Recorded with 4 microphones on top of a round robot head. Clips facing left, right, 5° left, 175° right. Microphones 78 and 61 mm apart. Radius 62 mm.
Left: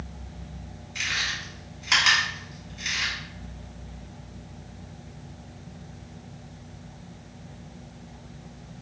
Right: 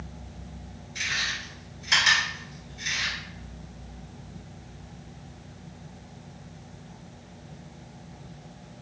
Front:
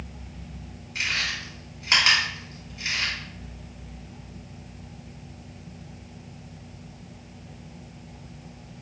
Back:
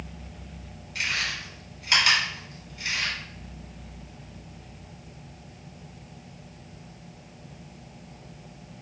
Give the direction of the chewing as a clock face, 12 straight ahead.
10 o'clock.